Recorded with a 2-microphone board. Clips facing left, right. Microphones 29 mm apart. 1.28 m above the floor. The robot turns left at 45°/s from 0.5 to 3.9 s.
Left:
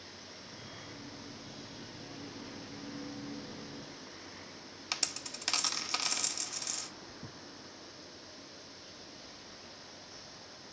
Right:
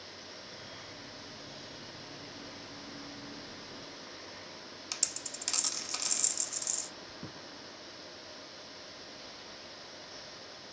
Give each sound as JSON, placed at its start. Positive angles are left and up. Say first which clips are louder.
{"t": 4.9, "sound": "a dropped coin", "louder": "left 4 dB", "side_deg": 25, "distance_m": 0.7}
{"t": 7.2, "sound": "a thud", "louder": "right 3 dB", "side_deg": -55, "distance_m": 2.0}